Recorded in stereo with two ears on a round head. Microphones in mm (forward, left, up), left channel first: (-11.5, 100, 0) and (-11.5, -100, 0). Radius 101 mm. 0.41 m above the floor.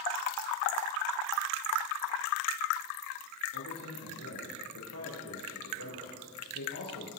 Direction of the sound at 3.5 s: 70° left (ahead or behind).